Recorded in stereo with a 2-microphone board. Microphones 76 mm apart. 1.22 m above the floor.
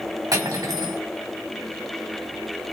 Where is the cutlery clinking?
55° right (ahead or behind), 1.8 m.